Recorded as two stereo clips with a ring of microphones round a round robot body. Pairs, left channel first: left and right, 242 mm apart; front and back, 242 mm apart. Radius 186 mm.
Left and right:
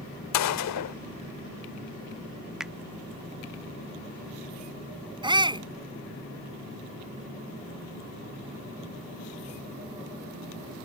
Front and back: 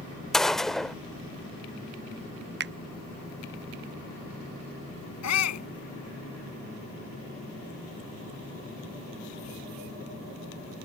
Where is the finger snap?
175° right.